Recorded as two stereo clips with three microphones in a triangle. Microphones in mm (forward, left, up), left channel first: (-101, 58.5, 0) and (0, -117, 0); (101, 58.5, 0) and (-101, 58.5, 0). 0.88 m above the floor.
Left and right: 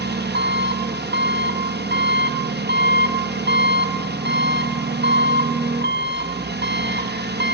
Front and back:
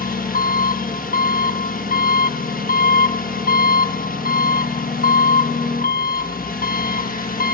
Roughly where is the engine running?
Ahead right.